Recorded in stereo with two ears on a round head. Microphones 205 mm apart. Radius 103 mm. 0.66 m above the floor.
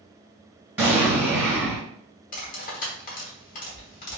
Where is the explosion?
10° right (ahead or behind), 1.9 m.